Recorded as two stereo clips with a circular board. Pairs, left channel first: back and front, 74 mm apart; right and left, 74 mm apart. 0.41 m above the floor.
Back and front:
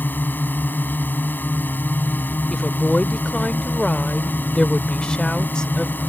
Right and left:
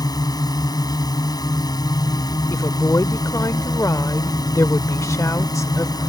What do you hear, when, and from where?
0.0 s a drone: 115° right
2.5 s a woman speaking: 105° right